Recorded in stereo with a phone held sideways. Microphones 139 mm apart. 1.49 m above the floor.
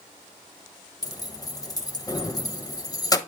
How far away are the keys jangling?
About 0.8 m.